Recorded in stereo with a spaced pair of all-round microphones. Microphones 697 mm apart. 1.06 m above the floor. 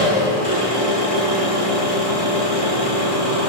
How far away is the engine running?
About 1.3 m.